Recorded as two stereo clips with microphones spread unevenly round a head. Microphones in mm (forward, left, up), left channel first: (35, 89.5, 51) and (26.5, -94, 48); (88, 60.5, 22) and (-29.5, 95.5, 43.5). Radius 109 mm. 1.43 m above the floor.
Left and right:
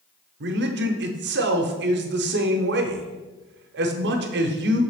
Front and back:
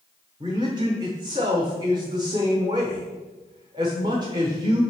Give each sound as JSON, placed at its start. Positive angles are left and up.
{"t": 0.4, "sound": "a man speaking", "azimuth_deg": -125, "distance_m": 0.7}